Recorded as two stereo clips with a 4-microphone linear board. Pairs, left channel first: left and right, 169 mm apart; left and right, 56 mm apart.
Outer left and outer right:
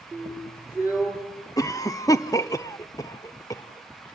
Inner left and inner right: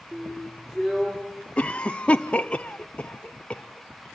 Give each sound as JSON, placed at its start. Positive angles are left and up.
{"t": 0.1, "sound": "a drill", "side_deg": -10, "distance_m": 8.5}
{"t": 1.6, "sound": "a cough", "side_deg": 20, "distance_m": 0.7}